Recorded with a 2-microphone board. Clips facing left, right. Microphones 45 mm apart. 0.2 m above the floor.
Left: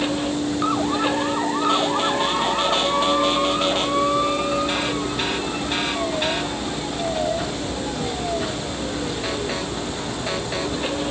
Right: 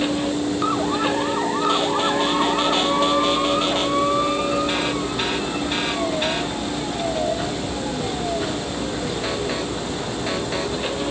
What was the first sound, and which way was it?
Only background noise.